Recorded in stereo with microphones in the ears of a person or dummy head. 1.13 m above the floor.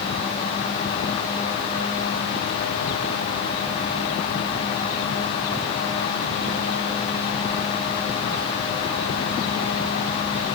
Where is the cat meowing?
I don't hear a cat meowing.